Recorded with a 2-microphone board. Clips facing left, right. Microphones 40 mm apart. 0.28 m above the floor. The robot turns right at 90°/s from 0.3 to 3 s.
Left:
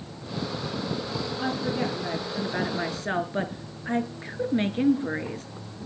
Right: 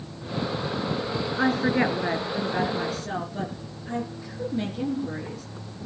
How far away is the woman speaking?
About 4 m.